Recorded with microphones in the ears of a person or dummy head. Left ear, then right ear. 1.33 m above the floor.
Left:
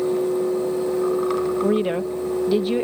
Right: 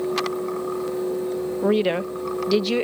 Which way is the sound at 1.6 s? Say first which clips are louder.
Even; 25° right (ahead or behind).